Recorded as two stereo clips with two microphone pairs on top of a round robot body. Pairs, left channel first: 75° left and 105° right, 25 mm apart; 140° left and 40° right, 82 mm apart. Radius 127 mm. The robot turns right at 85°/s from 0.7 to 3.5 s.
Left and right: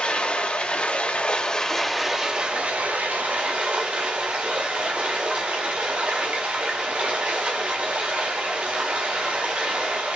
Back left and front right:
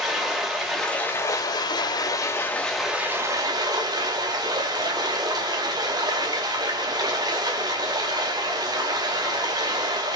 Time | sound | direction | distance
0.0 | running water | 45° left | 2.0 m